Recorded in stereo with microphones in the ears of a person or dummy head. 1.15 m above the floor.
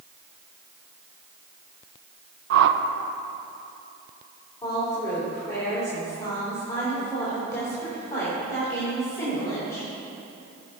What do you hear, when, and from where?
2.5 s a whoosh: 70° right (ahead or behind), 0.5 m
4.6 s a woman speaking: 20° left (ahead or behind), 2.5 m